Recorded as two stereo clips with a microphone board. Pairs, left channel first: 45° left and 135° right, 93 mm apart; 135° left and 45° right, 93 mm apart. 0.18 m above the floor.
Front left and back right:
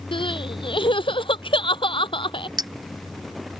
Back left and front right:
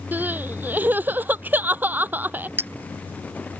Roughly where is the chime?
No chime in this recording.